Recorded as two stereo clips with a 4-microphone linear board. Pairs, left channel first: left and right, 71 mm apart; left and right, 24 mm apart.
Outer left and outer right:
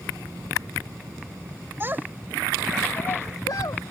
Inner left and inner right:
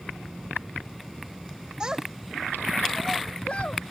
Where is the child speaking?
30° right (ahead or behind); by 3.9 s 70° left (ahead or behind).